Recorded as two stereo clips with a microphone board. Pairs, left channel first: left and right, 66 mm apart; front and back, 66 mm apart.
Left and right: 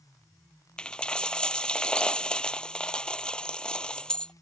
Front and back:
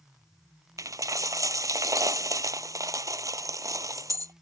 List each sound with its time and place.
0.8 s a dropped coin: 165° left